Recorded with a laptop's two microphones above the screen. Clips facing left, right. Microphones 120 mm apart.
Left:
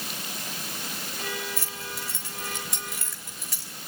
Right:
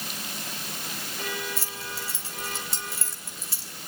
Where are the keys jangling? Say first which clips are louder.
Even; 30° right (ahead or behind), 3 m.